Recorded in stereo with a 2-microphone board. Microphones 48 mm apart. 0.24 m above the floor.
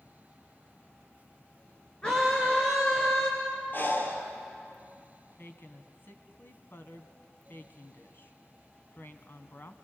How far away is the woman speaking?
About 1.6 m.